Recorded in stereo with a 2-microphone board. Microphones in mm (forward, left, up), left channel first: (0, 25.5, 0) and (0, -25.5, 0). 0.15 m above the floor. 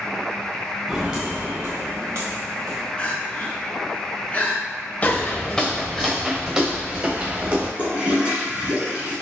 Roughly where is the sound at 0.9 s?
Centre.